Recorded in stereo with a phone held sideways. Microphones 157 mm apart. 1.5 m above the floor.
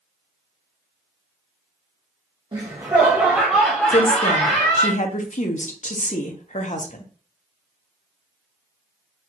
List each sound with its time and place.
2.5 s laughter: 30° right (ahead or behind), 1.3 m; by 4.9 s 35° left (ahead or behind), 1.6 m
3.9 s a woman speaking: 50° left (ahead or behind), 0.9 m